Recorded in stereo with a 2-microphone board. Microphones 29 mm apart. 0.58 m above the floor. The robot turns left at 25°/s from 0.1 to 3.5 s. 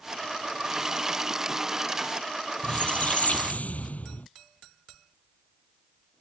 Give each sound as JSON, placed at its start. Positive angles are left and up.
{"t": 2.6, "sound": "a squeak", "side_deg": 45}